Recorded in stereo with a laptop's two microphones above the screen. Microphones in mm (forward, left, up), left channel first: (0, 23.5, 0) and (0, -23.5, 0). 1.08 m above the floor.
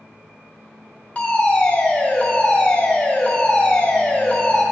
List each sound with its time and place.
1.1 s a fire alarm: 25° left (ahead or behind), 2.5 m